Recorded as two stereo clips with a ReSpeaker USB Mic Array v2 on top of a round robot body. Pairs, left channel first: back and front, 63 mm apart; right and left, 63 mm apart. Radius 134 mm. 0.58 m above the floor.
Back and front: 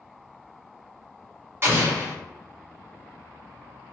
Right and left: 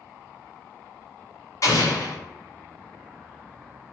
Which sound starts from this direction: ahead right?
An explosion, at 1.6 s.